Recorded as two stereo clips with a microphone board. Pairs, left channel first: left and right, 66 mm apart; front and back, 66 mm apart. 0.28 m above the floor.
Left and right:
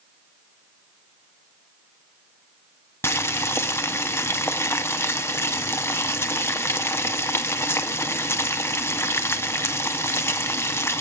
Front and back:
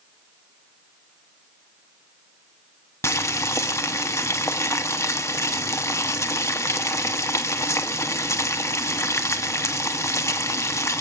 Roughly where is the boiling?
Ahead left.